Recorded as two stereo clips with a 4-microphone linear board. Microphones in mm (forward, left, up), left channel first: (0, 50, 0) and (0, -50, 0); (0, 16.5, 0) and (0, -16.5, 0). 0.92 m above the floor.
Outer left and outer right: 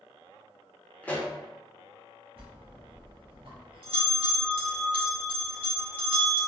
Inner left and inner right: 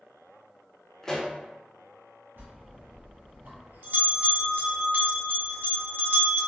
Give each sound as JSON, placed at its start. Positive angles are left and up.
{"t": 1.0, "sound": "a pop", "side_deg": 15, "distance_m": 0.6}
{"t": 2.4, "sound": "a bell", "side_deg": -70, "distance_m": 1.1}